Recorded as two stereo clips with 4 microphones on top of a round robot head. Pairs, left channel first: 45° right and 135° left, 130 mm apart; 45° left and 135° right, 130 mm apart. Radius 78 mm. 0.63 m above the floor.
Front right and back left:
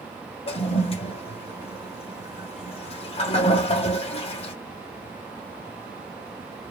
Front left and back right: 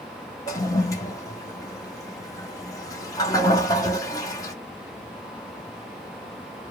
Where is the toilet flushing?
15° right, 1.4 m.